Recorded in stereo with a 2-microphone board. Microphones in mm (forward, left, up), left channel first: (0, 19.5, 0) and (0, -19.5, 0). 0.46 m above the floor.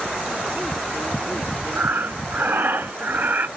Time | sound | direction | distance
1.8 | breathing | 65° right (ahead or behind) | 0.7 m